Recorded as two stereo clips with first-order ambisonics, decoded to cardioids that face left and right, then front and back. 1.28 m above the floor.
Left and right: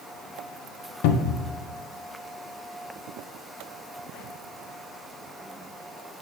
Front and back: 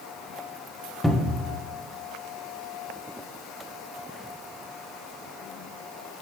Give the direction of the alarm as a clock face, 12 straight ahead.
I don't hear an alarm.